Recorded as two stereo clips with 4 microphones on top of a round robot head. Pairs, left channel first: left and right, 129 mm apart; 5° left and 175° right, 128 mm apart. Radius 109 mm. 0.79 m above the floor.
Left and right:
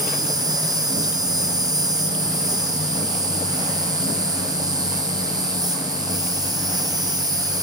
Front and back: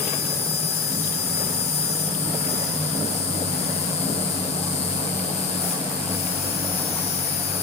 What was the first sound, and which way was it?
An insect, 30° right.